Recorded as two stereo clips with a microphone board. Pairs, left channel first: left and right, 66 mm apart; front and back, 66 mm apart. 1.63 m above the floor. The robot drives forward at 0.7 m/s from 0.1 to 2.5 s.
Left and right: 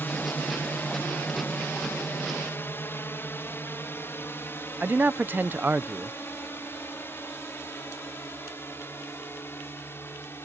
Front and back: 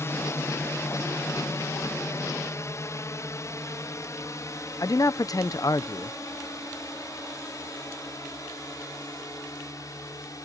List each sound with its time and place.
0.0 s a drone: 35° left
4.8 s a man speaking: 30° right